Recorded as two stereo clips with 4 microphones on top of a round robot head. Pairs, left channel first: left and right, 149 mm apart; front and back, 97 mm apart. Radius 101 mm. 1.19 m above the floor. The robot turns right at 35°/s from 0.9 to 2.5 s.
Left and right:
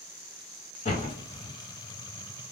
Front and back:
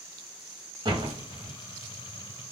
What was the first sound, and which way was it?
A door slam, 140° left.